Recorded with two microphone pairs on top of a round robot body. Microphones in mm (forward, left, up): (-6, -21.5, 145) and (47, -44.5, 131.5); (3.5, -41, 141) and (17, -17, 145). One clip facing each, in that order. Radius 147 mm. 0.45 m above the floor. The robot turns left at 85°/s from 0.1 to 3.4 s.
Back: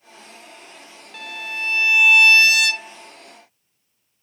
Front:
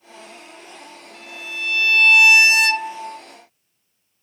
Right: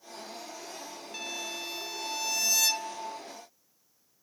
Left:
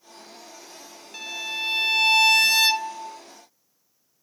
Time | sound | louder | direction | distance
1.1 | a violin | back 3 dB, left 7 dB | 145° left | ?